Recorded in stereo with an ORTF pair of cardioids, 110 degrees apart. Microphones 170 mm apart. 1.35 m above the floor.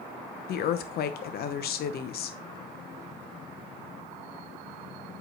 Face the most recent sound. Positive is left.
turn(degrees=60)